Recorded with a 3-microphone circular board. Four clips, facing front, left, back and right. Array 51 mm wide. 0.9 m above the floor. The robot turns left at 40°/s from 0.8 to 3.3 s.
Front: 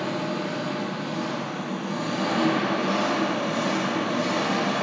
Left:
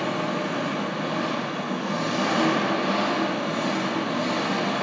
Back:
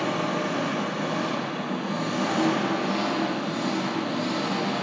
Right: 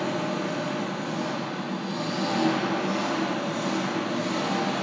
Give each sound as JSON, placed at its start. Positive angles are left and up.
{"t": 0.0, "sound": "an engine running", "azimuth_deg": 140, "distance_m": 0.8}